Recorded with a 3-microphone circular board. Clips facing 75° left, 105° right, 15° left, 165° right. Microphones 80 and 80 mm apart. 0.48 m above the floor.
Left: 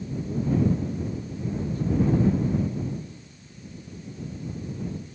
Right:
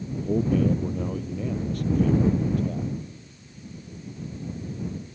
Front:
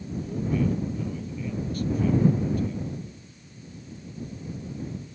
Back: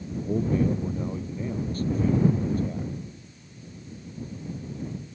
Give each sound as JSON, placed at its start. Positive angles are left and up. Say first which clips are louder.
{"t": 0.2, "sound": "a man speaking", "louder": "right 2 dB, back 3 dB", "azimuth_deg": -110}